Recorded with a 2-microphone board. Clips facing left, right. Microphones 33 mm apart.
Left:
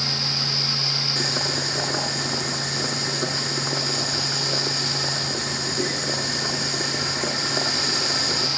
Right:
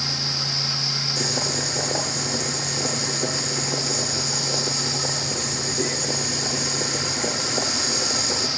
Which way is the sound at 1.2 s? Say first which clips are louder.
Left 1 dB; 45° left (ahead or behind).